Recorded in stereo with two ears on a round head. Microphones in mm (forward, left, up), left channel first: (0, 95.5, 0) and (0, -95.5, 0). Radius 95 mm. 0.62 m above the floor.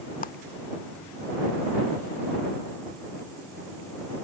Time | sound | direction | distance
0.2 | a clap | 40° left (ahead or behind) | ?